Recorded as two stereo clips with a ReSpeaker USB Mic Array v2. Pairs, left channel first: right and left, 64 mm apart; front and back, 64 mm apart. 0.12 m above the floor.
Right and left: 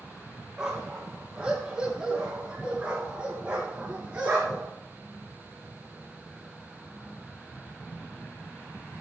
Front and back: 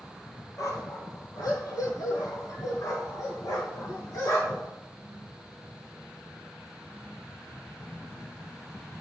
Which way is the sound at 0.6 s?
10° left.